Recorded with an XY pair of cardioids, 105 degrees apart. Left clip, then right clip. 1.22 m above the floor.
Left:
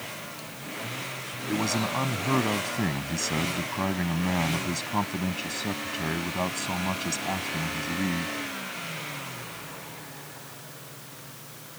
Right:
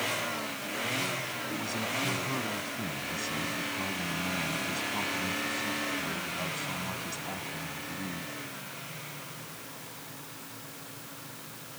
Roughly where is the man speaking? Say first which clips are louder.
Left 10 dB; ahead left.